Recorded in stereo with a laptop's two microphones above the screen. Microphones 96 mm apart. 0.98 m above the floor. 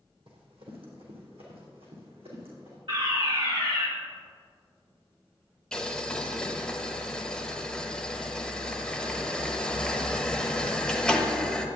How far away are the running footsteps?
About 2.5 m.